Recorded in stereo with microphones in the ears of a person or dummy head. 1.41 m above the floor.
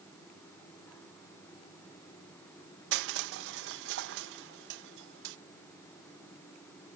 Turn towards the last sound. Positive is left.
turn(degrees=-70)  # may be behind; listen again after turning